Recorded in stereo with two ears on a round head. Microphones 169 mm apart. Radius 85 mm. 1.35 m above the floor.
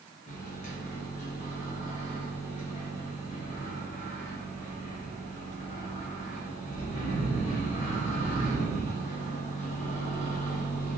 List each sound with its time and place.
0.3 s a microwave: 40° left (ahead or behind), 1.0 m